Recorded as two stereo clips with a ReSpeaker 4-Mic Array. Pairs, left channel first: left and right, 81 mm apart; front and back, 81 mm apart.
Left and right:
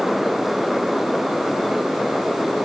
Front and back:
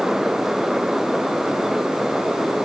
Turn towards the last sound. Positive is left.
No sound to turn to.